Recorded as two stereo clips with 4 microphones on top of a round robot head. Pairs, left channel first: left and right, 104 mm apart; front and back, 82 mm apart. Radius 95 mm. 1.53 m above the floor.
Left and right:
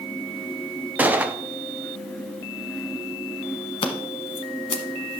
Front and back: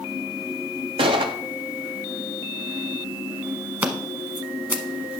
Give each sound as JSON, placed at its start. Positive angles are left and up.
{"t": 1.0, "sound": "a gunshot", "azimuth_deg": -165, "distance_m": 0.6}
{"t": 3.8, "sound": "scissors", "azimuth_deg": 120, "distance_m": 1.0}